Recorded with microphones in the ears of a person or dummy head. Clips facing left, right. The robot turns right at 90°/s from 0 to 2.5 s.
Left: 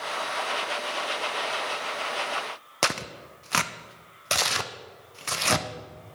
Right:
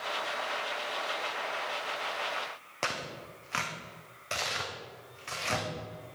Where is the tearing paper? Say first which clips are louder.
Left 6 dB; 60° left (ahead or behind), 0.5 m.